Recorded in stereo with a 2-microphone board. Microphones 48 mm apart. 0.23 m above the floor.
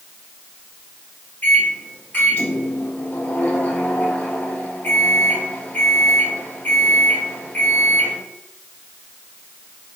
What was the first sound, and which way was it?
A microwave, 35° left (ahead or behind).